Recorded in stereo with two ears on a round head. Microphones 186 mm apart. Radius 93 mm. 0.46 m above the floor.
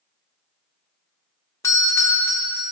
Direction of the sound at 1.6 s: 15° left (ahead or behind).